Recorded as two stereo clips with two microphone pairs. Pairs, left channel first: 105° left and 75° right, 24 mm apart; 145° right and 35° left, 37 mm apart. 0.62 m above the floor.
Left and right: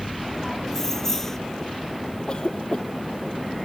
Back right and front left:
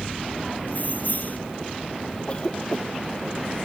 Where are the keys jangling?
175° left.